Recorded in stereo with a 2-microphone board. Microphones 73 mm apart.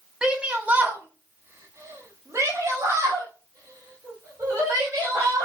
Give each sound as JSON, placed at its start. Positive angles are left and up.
{"t": 0.2, "sound": "a shout", "side_deg": -10, "distance_m": 1.3}